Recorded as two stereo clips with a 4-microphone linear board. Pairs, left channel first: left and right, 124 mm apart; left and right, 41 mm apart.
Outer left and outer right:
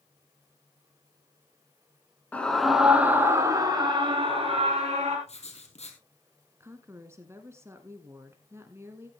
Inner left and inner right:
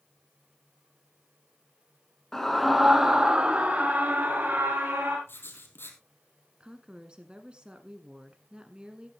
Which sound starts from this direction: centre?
A scream, at 2.3 s.